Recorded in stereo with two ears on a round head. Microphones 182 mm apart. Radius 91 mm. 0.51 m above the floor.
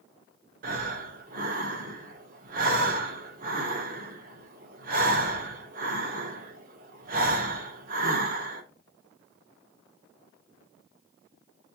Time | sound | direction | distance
0.6 | breathing | 45° right (ahead or behind) | 1.0 m